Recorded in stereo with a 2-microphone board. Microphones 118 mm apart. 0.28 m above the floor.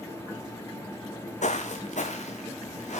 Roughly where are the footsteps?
Left.